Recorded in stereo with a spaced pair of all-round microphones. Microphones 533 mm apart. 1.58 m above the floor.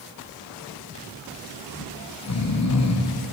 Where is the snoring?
35° left (ahead or behind), 0.5 m.